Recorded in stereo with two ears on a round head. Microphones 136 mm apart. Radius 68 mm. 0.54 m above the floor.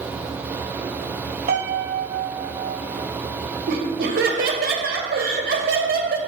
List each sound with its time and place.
1.5 s a piano: 60° right (ahead or behind), 1.9 m
3.7 s laughter: 65° right (ahead or behind), 2.0 m